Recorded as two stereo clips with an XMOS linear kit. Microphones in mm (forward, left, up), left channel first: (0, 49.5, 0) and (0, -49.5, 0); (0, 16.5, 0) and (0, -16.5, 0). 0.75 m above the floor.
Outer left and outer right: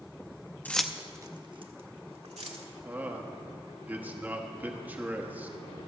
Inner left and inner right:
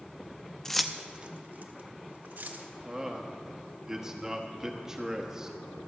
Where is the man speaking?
15° right (ahead or behind), 1.1 m.